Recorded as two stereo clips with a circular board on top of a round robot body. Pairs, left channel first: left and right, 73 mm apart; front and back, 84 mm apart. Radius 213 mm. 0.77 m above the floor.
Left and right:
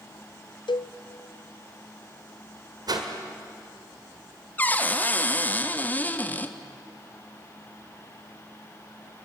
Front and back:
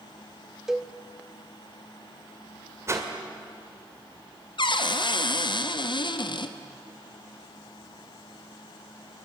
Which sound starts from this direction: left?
A cowbell, at 0.7 s.